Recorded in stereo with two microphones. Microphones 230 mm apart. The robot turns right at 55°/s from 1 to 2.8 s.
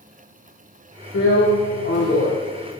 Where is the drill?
80° left, 9.5 m; by 2.3 s 145° left, 9.5 m.